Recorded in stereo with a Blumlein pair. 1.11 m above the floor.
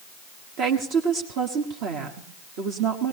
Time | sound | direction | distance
0.6 | a woman speaking | 40° right | 1.4 m